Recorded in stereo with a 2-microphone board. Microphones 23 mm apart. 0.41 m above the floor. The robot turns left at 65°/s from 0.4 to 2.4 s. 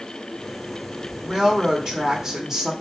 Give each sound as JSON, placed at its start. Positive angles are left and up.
{"t": 1.2, "sound": "a woman speaking", "side_deg": -25, "distance_m": 0.9}